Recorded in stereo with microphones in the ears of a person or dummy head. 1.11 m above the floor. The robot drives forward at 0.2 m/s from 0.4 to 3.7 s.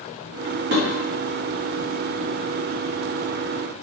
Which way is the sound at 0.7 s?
60° right (ahead or behind).